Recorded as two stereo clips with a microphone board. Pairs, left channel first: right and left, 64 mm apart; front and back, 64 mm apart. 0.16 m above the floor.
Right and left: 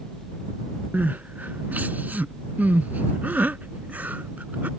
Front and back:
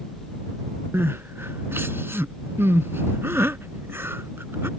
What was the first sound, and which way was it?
Crying, 145° left.